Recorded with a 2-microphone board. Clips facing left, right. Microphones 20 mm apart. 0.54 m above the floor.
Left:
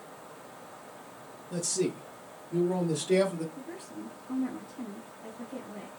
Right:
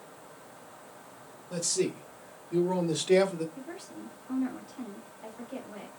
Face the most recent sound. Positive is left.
turn(degrees=-65)  # may be behind; listen again after turning